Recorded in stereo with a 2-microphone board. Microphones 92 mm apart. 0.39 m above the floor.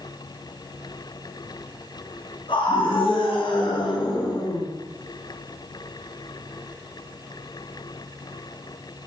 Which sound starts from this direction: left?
A scream, at 2.5 s.